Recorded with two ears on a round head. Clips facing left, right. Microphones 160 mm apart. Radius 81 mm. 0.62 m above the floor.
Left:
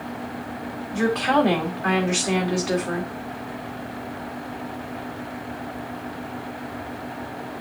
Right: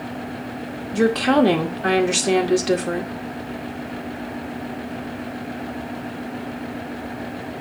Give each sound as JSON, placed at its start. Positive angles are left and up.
{"t": 0.9, "sound": "a woman speaking", "side_deg": -45, "distance_m": 1.9}